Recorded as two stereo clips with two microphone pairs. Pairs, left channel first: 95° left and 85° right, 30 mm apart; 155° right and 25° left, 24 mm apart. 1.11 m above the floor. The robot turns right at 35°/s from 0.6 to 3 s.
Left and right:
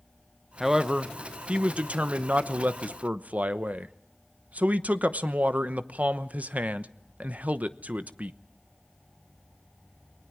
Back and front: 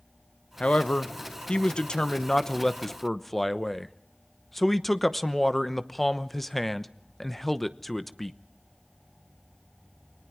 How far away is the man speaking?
About 0.9 m.